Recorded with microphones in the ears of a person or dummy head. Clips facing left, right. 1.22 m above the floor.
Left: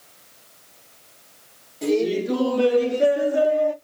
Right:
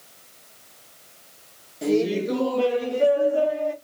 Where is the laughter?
5° right (ahead or behind), 1.0 m; by 3.7 s 20° left (ahead or behind), 1.1 m.